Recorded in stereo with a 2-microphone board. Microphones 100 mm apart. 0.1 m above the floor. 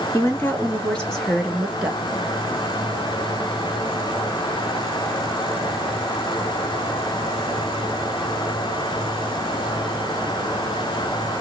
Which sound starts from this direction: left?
A woman speaking, at 0.1 s.